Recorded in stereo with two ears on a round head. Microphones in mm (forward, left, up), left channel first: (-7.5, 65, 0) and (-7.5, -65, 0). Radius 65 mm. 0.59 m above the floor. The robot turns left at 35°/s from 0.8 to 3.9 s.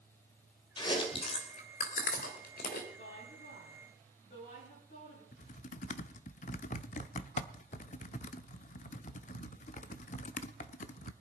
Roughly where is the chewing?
Left.